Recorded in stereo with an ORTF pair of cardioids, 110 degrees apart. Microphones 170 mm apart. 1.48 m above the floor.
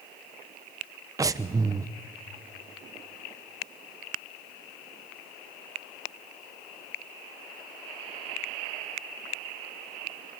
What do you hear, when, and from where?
1.2 s breathing: 20° right, 0.8 m